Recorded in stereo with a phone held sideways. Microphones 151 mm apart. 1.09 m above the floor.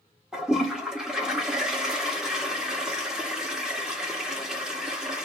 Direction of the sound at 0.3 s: 5° right (ahead or behind).